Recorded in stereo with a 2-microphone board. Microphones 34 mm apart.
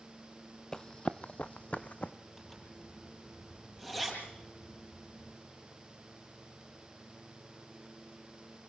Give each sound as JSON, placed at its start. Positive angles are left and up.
{"t": 0.7, "sound": "running footsteps", "side_deg": 15, "distance_m": 0.6}
{"t": 2.4, "sound": "a zipper", "side_deg": 10, "distance_m": 9.5}